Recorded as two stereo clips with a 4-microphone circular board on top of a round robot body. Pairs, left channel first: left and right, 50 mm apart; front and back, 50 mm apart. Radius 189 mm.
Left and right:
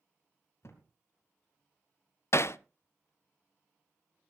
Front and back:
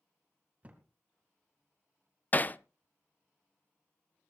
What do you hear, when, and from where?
0.6 s a thud: 120° left, 2 m
2.3 s hammering: 60° left, 0.6 m